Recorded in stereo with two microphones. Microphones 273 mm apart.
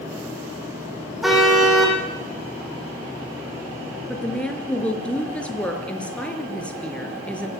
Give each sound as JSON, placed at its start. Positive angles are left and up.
{"t": 1.2, "sound": "a car horn", "side_deg": 0, "distance_m": 6.0}
{"t": 4.1, "sound": "a woman speaking", "side_deg": 5, "distance_m": 4.5}